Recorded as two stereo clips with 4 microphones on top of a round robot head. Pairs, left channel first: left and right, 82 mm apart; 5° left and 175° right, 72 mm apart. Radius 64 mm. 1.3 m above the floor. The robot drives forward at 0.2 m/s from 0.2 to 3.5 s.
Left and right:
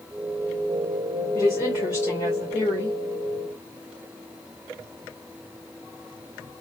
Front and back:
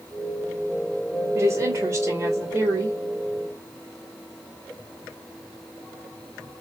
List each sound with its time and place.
1.4 s a woman speaking: 140° left, 1.7 m; by 3.0 s 145° left, 1.9 m